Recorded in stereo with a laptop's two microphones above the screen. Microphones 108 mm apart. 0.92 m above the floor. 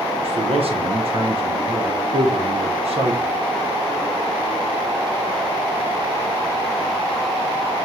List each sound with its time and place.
0.2 s a man speaking: 60° right (ahead or behind), 0.6 m